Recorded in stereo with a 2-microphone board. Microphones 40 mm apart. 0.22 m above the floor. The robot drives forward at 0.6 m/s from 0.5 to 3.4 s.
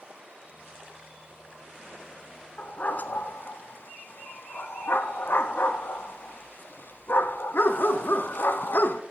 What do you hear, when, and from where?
2.6 s a dog barking: 40° left (ahead or behind), 1.0 m; by 9.0 s 55° left (ahead or behind), 0.7 m